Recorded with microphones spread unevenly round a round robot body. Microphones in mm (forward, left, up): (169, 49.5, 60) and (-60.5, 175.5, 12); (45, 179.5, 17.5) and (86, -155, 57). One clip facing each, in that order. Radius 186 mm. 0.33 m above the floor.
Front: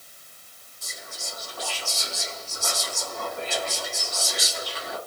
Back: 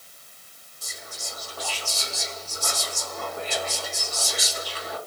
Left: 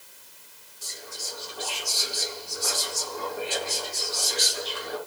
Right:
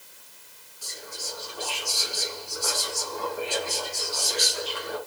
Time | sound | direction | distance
0.8 | whispering | 145° left | 2 m